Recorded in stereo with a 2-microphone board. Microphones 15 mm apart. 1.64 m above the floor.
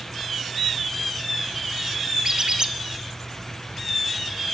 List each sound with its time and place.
2.2 s a squeak: 60° right (ahead or behind), 1.3 m